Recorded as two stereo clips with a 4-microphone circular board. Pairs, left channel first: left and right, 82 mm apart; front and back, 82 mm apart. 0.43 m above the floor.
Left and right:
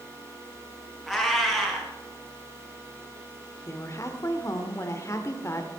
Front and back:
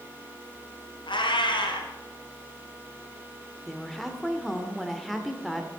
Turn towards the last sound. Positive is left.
turn(degrees=90)